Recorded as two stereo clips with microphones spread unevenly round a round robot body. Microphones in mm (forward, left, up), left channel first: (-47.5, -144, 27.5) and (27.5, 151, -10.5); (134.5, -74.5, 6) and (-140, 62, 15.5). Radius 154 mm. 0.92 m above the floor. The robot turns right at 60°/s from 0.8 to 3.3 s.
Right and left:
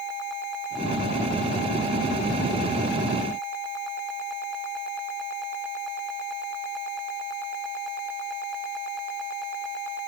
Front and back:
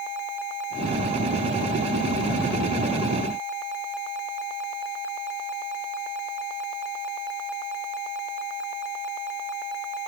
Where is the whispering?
No whispering in this recording.